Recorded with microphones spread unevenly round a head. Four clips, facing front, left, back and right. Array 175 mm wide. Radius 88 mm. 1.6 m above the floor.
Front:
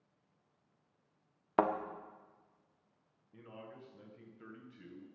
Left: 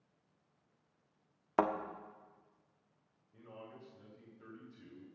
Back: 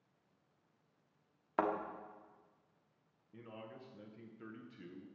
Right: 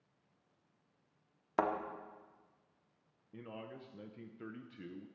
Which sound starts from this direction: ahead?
A thud, at 1.6 s.